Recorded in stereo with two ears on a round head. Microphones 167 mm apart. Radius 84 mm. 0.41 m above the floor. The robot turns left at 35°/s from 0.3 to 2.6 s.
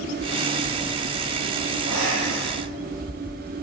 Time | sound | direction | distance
1.8 | breathing | 70° right (ahead or behind) | 8.5 m